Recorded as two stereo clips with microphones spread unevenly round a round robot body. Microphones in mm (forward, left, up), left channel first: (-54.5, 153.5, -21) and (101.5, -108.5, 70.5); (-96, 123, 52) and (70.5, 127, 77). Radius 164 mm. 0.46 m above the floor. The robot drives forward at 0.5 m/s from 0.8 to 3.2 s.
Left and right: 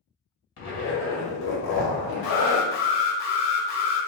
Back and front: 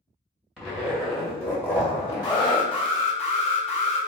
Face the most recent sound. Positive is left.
turn(degrees=135)